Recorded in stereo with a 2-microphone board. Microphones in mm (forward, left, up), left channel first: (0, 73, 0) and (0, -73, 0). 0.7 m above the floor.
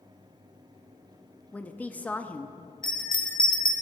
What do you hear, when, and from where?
1.5 s a woman speaking: 10° left (ahead or behind), 0.7 m
2.8 s a bell: 30° left (ahead or behind), 1.3 m